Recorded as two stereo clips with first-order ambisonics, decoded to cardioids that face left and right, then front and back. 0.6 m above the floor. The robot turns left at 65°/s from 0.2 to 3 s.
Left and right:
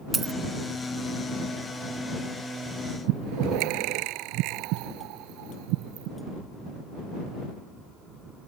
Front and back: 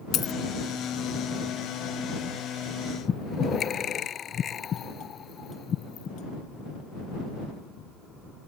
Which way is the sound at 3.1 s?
65° right.